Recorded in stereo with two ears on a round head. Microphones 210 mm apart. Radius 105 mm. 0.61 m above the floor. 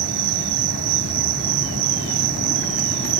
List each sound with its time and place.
0.0 s an insect: 70° right (ahead or behind)